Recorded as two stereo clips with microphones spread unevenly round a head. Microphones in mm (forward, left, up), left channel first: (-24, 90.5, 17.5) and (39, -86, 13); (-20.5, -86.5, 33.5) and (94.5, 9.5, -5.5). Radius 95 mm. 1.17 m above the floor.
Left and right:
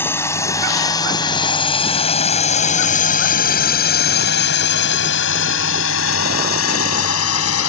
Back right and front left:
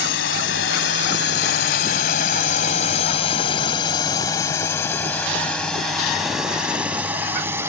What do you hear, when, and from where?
0.0 s a drone: 170° right; by 7.7 s 120° left